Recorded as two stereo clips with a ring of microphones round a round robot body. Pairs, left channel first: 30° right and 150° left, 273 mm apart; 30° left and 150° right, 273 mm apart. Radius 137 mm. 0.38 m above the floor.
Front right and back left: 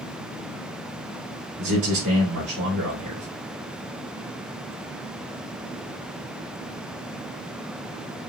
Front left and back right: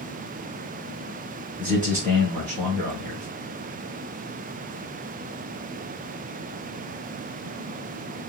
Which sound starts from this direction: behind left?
A man speaking, at 1.6 s.